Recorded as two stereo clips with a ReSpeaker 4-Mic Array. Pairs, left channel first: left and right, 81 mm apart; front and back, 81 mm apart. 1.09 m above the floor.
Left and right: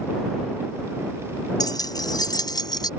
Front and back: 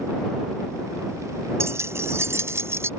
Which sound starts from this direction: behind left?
Keys jangling, at 1.6 s.